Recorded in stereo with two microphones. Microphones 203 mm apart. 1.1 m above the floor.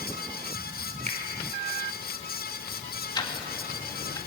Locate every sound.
1.1 s a finger snap: 35° right (ahead or behind), 4.5 m
3.1 s ticking: 20° left (ahead or behind), 2.5 m